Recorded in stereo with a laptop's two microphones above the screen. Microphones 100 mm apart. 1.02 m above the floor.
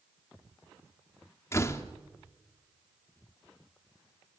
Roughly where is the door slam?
Left.